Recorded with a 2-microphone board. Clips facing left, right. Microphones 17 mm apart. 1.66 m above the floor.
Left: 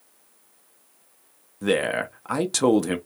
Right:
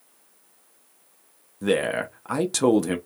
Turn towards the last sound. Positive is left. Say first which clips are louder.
# even
turn(degrees=5)  # may be behind; listen again after turning